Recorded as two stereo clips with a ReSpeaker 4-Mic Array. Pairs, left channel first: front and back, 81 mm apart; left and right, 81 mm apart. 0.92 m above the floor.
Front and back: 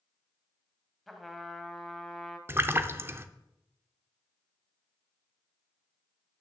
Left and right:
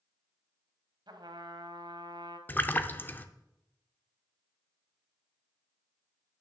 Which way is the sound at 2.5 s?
140° left.